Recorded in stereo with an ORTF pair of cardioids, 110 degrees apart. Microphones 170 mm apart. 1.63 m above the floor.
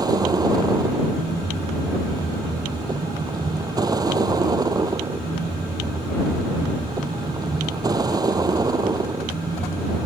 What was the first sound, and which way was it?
A vehicle, 25° right.